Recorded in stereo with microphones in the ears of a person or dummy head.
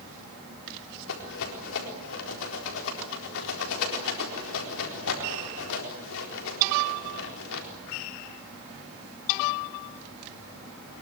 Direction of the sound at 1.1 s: 70° left (ahead or behind).